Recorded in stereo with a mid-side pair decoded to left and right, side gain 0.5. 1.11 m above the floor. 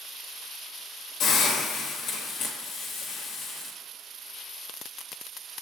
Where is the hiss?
70° left, 1.0 m.